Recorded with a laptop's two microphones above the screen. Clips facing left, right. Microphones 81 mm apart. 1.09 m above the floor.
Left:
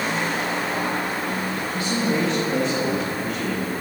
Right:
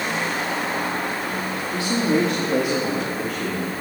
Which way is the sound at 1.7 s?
25° right (ahead or behind).